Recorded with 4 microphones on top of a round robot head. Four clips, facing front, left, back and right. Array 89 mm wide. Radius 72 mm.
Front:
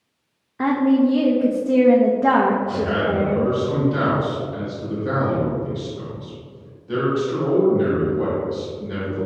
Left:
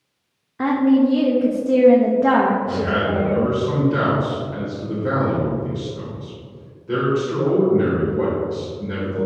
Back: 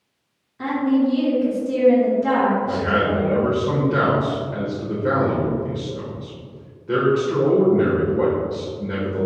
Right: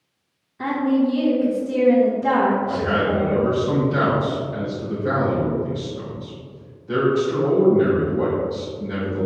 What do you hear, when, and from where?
0.6 s a woman speaking: 45° left, 1.1 m
2.6 s a man speaking: 160° left, 2.5 m